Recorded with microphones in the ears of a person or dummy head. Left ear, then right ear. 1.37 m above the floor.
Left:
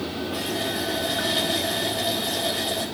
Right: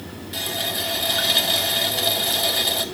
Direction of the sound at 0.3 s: 25° right (ahead or behind).